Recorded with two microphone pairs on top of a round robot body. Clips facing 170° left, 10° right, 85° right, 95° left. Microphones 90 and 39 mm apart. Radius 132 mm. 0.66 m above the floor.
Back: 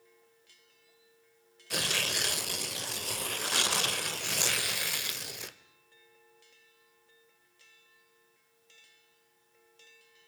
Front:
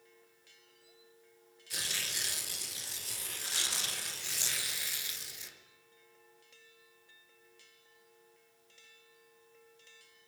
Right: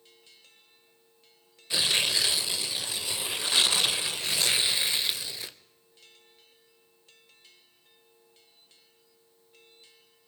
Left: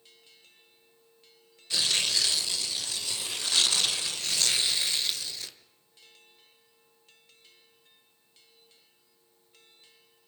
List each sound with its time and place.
1.7 s tearing paper: 160° right, 1.1 m